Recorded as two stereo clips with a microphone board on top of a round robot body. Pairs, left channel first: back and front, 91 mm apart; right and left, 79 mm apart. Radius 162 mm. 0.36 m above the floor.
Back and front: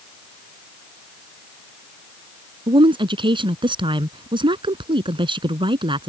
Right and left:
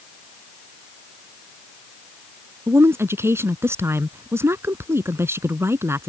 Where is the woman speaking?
30° left.